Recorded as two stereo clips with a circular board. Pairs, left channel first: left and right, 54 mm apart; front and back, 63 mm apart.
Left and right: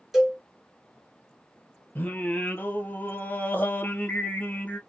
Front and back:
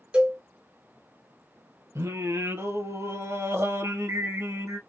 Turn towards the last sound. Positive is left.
turn(degrees=140)